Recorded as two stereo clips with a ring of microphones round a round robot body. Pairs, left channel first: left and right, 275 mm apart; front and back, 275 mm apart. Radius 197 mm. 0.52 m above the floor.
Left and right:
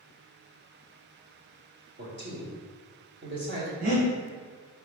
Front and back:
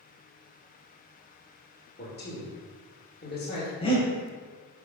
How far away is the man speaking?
About 2.5 m.